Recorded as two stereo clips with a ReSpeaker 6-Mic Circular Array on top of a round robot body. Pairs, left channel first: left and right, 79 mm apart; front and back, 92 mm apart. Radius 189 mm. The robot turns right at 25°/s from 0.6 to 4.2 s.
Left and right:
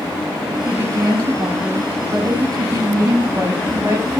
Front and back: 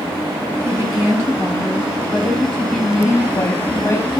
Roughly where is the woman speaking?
Behind right.